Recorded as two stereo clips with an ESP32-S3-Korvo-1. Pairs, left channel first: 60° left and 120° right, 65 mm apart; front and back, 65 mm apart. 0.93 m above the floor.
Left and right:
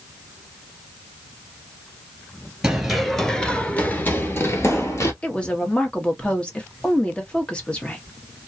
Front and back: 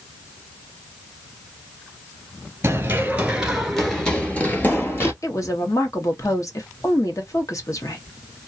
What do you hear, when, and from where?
2.6 s running footsteps: 165° left, 1.1 m; by 5.1 s 40° left, 1.4 m
5.2 s a woman speaking: 10° right, 0.9 m